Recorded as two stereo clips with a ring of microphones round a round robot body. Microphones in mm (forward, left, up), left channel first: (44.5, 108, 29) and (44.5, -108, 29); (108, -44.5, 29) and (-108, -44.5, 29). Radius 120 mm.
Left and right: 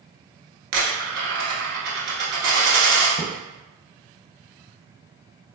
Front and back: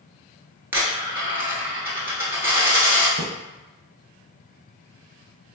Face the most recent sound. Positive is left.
turn(degrees=-160)